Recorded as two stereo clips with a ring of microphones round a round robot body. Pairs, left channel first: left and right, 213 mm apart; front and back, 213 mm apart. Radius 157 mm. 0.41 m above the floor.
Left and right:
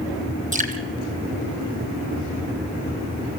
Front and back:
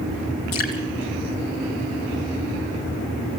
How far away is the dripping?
About 2.5 m.